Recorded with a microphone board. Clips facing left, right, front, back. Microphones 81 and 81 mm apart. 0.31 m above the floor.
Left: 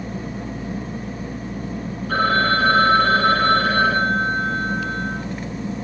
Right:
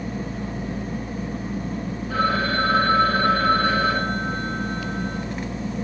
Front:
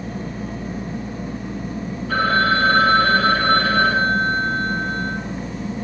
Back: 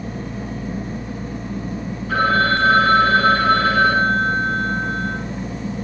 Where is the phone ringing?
85° left, 5.5 m.